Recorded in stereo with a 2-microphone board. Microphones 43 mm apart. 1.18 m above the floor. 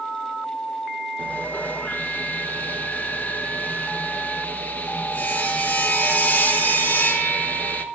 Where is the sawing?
45° left (ahead or behind), 1.1 m.